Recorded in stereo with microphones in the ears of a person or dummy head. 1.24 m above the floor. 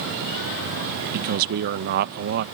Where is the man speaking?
55° right (ahead or behind).